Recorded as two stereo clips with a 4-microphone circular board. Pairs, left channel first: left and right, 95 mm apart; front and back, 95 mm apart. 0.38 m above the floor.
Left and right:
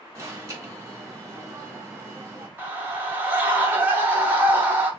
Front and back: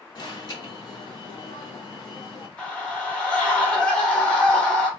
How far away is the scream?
About 1.4 m.